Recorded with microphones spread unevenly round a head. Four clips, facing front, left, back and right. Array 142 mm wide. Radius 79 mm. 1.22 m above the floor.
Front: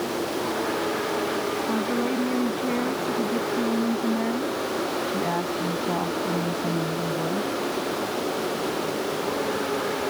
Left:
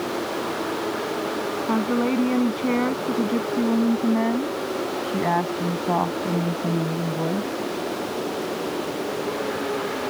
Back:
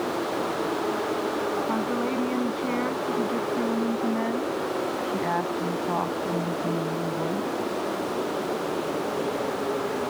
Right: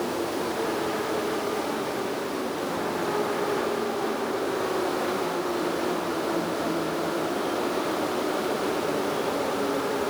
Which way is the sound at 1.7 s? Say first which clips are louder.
Left 7 dB, front 1 dB; 85° left.